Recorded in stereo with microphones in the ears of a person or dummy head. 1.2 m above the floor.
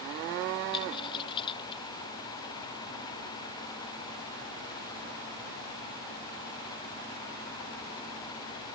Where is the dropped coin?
25° left (ahead or behind).